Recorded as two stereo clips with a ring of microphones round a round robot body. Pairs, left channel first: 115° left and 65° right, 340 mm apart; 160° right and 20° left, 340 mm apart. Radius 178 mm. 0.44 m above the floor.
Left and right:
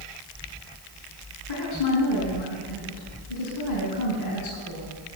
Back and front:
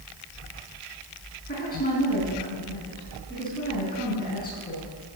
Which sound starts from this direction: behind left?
A woman speaking, at 1.5 s.